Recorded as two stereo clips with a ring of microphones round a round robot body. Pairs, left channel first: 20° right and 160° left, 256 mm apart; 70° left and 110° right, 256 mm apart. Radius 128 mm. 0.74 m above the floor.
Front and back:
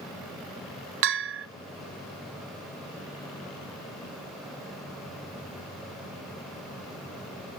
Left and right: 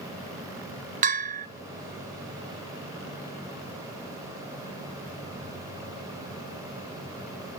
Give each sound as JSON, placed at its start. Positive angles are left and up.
{"t": 1.0, "sound": "a bell", "azimuth_deg": -170, "distance_m": 0.7}